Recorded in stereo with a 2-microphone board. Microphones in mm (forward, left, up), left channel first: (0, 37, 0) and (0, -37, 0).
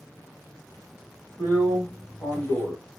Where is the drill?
30° left (ahead or behind), 1.7 m.